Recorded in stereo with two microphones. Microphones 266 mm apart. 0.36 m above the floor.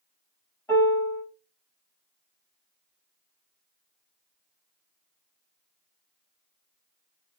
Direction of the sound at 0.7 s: 10° left (ahead or behind).